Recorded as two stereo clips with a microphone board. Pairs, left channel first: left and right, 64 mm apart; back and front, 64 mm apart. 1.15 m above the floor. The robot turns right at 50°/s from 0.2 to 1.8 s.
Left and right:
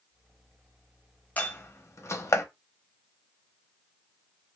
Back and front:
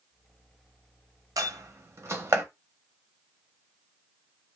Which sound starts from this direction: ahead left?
A door slam, at 1.4 s.